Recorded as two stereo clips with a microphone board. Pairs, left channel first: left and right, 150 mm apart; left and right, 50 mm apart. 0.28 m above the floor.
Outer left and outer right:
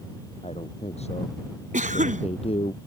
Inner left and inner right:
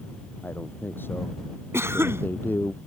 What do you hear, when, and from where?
0.4 s a man speaking: 45° left (ahead or behind)
1.7 s a cough: 60° right (ahead or behind)